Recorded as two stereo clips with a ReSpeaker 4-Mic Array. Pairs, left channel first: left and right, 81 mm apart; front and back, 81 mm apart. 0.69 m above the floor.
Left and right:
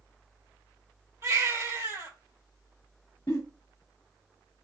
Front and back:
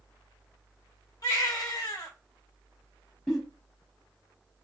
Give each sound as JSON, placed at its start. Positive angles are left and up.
{"t": 1.2, "sound": "a baby crying", "azimuth_deg": -40, "distance_m": 1.3}
{"t": 3.3, "sound": "a giggle", "azimuth_deg": 85, "distance_m": 1.3}